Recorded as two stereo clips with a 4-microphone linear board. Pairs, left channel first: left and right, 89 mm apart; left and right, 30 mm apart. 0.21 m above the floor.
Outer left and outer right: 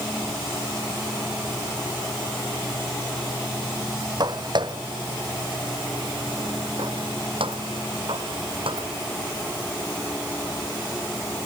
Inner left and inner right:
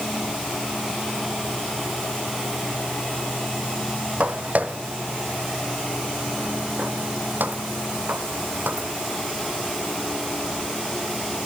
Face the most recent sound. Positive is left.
turn(degrees=-85)